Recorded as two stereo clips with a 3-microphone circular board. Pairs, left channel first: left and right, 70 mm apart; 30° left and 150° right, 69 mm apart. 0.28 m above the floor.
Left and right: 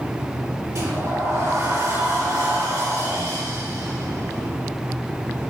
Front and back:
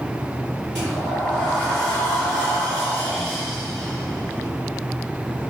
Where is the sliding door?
50° right, 4 m.